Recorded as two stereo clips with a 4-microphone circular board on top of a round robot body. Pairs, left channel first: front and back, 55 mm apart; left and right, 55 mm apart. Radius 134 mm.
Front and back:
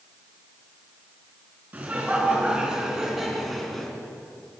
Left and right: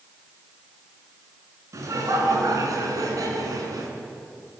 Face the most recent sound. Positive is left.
turn(degrees=-85)